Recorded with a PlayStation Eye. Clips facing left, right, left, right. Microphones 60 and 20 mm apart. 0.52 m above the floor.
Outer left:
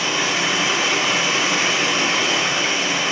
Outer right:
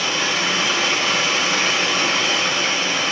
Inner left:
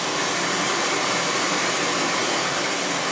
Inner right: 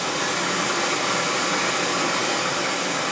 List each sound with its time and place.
0.0 s running water: 15° left (ahead or behind), 3.5 m